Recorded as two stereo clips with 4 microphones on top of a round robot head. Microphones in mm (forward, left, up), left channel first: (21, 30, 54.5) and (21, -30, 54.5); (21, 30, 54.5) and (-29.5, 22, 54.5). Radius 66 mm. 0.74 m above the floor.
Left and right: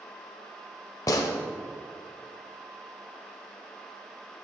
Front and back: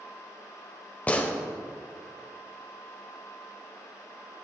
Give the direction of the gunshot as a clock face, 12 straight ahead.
10 o'clock.